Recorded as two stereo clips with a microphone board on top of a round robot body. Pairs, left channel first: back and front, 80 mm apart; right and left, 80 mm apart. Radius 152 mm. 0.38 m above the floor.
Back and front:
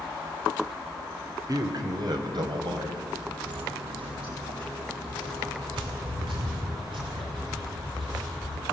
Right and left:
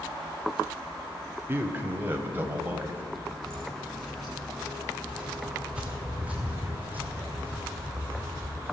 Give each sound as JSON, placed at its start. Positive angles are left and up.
{"t": 1.5, "sound": "a man speaking", "azimuth_deg": 30, "distance_m": 2.0}
{"t": 3.4, "sound": "footsteps", "azimuth_deg": -10, "distance_m": 4.0}